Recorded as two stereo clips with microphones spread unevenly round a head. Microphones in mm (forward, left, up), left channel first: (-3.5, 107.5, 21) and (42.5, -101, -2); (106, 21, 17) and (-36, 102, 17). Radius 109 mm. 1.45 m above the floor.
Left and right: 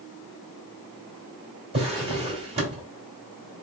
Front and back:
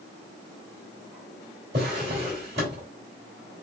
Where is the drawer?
145° right, 2 m.